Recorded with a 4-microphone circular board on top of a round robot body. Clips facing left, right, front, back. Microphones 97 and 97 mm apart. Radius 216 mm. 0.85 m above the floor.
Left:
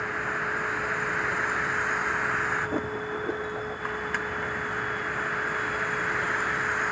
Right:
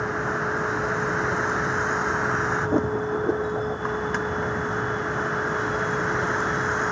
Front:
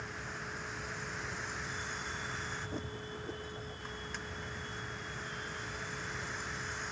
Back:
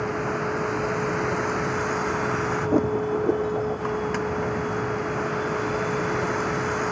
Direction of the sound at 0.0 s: 155° right.